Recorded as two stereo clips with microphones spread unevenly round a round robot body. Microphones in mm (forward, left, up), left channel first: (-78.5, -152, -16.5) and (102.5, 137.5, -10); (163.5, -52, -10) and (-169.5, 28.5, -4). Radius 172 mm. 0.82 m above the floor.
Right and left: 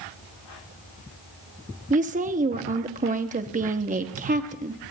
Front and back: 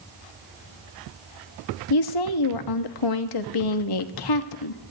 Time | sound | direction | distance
1.9 | a woman speaking | 10° right | 1.1 m